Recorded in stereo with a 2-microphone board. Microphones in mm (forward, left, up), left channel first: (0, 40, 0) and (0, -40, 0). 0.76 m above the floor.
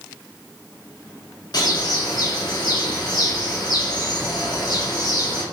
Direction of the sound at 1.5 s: 60° left (ahead or behind).